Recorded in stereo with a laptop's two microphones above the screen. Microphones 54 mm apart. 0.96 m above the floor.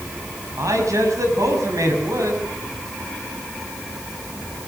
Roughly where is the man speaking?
Right.